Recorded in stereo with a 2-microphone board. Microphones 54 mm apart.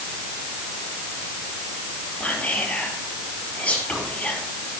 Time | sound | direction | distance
2.2 | whispering | 20° left (ahead or behind) | 5 m